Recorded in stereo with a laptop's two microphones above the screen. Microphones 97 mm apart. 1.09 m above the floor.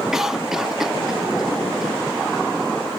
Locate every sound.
0.1 s a cough: 5° right (ahead or behind), 1.2 m